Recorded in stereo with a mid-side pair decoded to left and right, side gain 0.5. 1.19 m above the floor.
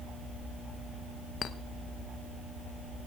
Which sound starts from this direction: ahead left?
A clink, at 1.4 s.